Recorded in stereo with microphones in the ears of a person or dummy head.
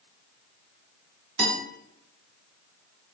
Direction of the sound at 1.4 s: 65° right (ahead or behind).